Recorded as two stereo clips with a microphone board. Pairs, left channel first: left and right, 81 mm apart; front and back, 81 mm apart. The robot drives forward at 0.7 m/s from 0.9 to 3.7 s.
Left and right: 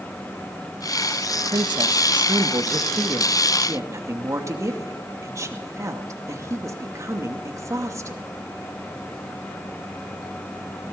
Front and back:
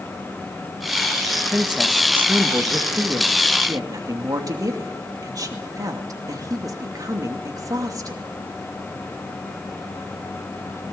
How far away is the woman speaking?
About 1.6 m.